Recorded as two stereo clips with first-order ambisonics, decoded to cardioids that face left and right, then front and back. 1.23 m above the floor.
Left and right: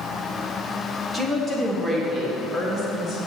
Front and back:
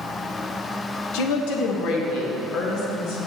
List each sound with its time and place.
1.1 s a woman speaking: 15° right, 0.7 m; by 3.2 s 25° right, 2.0 m